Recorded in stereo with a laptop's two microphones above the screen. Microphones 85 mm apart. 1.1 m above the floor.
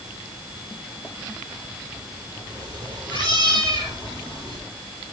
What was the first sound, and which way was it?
A cat meowing, 70° right (ahead or behind).